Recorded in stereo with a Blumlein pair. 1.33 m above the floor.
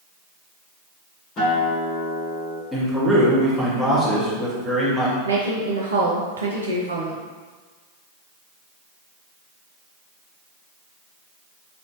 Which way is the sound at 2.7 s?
10° right.